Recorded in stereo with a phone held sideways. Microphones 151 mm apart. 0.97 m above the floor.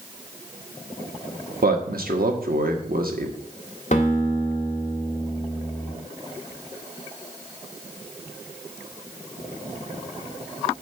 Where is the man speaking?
75° right (ahead or behind), 1.2 m.